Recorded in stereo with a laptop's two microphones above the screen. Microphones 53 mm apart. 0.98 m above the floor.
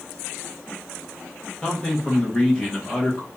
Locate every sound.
1.6 s a man speaking: 15° left (ahead or behind), 1.4 m